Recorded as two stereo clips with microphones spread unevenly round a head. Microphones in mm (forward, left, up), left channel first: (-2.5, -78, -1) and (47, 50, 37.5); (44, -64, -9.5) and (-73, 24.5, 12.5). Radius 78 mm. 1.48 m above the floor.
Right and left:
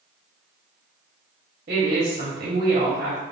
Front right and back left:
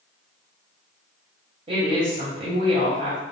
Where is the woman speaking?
90° left, 0.7 m.